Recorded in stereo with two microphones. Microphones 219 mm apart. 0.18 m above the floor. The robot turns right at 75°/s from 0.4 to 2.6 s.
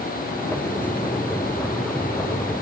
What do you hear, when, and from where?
Only background noise.